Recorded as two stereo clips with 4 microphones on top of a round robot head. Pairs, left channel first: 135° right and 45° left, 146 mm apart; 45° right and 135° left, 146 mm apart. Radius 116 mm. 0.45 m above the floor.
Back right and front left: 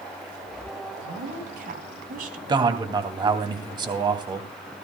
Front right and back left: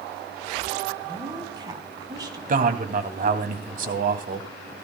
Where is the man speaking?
105° left, 3 m.